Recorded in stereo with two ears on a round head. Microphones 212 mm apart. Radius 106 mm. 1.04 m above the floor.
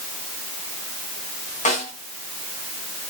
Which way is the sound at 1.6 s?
30° left (ahead or behind).